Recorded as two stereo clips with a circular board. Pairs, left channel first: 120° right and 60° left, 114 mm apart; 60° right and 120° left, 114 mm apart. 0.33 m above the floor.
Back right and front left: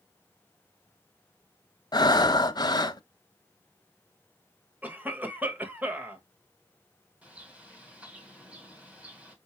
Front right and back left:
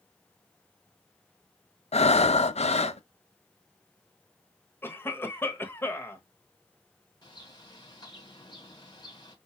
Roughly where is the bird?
Ahead.